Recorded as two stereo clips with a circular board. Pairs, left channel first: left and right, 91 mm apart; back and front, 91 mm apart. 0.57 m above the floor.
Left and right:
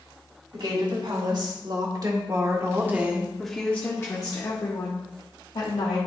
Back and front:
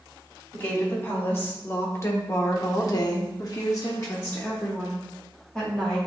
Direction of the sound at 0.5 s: 115° right.